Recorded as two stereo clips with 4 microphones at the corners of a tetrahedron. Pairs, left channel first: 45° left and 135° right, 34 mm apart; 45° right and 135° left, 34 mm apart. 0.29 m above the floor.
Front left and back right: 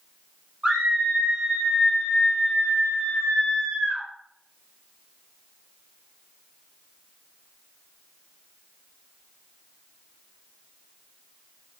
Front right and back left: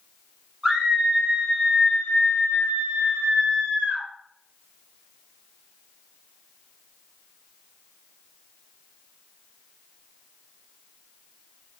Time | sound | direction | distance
0.6 | a scream | 165° right | 1.1 m